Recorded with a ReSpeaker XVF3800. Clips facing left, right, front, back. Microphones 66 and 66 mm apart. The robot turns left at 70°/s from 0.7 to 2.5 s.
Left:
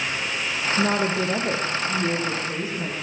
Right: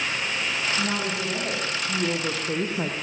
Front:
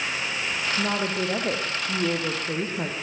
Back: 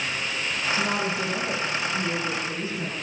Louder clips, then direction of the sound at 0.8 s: Left 5 dB, front 2 dB; 75° left.